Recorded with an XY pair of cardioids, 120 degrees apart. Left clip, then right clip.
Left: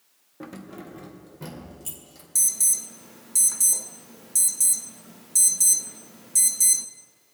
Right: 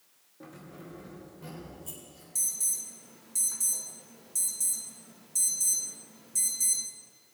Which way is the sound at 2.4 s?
50° left.